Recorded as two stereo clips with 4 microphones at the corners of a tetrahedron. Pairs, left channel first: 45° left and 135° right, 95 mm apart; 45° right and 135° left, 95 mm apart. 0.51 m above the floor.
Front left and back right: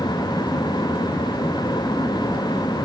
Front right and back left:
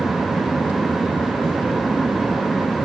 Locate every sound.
Only background noise.